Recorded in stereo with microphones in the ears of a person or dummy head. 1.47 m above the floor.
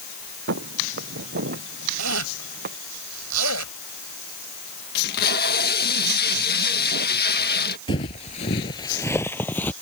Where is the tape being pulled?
50° left (ahead or behind).